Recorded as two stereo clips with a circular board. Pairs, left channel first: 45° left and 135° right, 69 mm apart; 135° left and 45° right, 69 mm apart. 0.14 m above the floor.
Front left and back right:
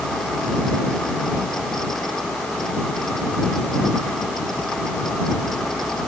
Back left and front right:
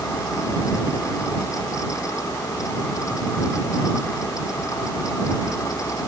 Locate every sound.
Only background noise.